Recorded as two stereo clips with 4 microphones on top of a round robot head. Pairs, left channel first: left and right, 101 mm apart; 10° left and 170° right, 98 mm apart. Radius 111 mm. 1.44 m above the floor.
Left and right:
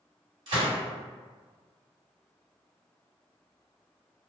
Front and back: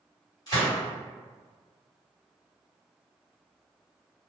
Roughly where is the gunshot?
Ahead right.